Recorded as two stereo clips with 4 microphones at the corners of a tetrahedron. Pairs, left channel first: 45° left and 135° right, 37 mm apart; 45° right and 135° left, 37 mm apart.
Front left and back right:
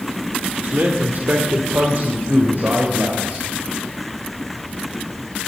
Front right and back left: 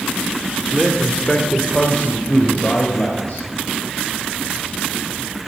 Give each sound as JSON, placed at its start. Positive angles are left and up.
{"t": 0.6, "sound": "a man speaking", "azimuth_deg": -140, "distance_m": 1.6}